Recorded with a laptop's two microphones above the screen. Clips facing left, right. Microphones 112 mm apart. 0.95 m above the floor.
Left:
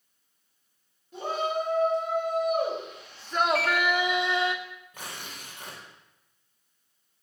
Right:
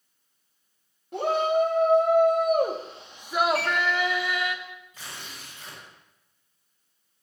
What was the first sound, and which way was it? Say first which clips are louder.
A shout: right 6 dB; 80° right.